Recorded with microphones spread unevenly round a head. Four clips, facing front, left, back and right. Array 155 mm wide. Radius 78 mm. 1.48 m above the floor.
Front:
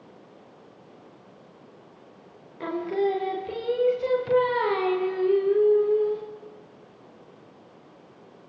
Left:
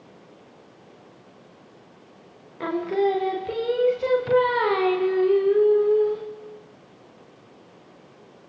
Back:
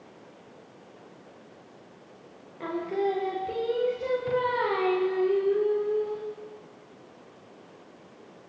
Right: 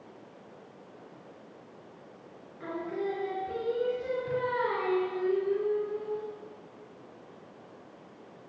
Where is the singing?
85° left, 0.7 m.